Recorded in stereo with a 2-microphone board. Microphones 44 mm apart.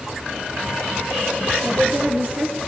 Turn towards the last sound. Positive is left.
turn(degrees=-45)  # may be behind; listen again after turning